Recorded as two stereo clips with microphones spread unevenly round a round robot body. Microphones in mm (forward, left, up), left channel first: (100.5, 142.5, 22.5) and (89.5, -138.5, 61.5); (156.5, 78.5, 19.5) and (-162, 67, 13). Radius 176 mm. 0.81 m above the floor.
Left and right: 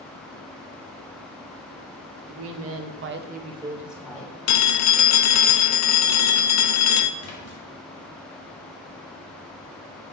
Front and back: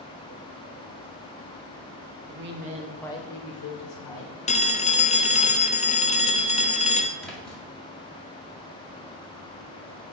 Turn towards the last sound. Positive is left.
turn(degrees=90)